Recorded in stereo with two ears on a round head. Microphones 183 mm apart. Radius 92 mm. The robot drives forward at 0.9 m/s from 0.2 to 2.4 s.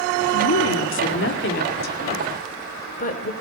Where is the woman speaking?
85° left, 2.0 m; by 3.3 s 45° left (ahead or behind), 3 m.